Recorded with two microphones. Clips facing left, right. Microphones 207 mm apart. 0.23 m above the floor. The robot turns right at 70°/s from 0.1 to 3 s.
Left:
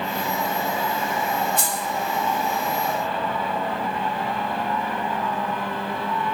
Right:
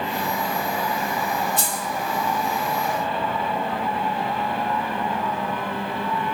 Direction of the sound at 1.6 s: 15° left (ahead or behind).